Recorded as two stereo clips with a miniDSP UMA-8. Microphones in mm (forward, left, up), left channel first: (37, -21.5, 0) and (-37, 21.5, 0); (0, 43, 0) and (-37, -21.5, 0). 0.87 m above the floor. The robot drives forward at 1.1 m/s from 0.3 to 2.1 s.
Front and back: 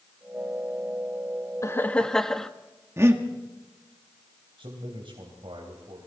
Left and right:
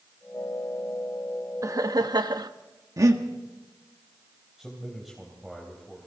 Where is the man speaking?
155° left, 3.5 m.